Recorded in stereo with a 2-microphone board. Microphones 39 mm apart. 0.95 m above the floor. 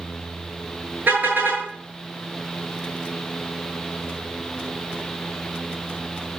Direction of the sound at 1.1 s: 50° right (ahead or behind).